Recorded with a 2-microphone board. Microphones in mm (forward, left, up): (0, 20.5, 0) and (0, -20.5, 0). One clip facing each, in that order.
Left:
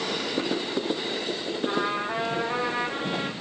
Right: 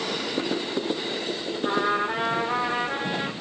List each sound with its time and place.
1.6 s a trumpet: 75° right (ahead or behind), 4 m